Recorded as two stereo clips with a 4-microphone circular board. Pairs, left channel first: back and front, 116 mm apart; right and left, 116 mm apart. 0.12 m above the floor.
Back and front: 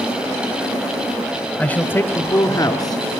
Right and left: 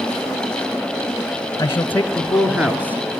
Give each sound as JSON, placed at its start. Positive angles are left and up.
{"t": 1.6, "sound": "a man speaking", "azimuth_deg": -110, "distance_m": 1.2}